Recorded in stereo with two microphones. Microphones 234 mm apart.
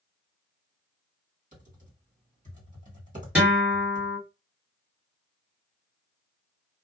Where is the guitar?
5° right (ahead or behind), 1.8 m.